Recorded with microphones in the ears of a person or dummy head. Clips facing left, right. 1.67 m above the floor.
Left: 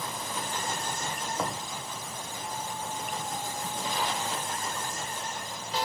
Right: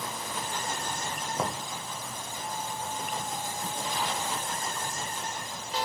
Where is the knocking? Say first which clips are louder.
Right 2 dB; 15° right (ahead or behind), 1.1 m.